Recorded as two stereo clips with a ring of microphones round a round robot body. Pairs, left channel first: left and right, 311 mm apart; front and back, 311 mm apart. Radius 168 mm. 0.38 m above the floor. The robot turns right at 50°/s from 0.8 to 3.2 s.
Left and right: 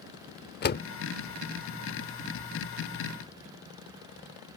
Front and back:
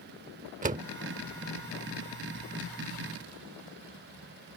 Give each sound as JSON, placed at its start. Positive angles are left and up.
{"t": 0.6, "sound": "a door slam", "azimuth_deg": 125}